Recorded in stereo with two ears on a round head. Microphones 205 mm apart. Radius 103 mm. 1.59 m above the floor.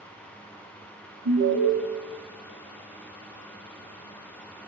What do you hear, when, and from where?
1.2 s an alarm: 75° right (ahead or behind), 6 m